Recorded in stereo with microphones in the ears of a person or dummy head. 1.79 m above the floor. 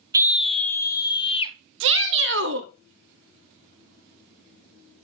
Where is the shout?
70° right (ahead or behind), 1.0 m.